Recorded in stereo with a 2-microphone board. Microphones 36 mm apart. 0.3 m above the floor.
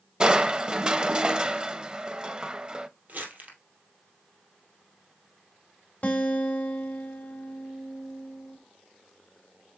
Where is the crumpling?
55° right (ahead or behind), 2 m.